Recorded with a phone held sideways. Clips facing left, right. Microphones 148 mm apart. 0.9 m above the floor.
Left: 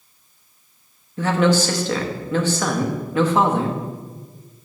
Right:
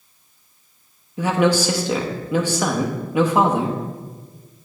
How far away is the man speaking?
About 0.8 m.